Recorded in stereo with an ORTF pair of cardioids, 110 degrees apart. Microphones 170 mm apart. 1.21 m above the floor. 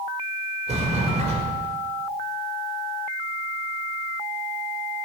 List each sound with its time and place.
0.7 s a sliding door: 40° right, 4 m